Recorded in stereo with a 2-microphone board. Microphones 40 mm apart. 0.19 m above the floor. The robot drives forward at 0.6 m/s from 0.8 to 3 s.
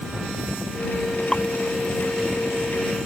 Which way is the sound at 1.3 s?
15° left (ahead or behind).